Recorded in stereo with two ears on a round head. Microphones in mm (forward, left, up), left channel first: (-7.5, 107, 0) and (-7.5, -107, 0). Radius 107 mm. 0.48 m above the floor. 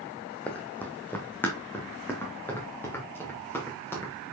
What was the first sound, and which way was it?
Running footsteps, 5° left (ahead or behind).